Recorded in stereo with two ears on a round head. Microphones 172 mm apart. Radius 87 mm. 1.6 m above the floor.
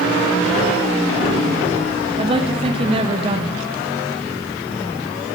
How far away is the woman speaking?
About 1.0 m.